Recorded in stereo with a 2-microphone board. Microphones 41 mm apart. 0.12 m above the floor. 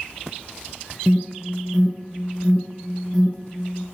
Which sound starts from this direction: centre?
An alarm, at 1.1 s.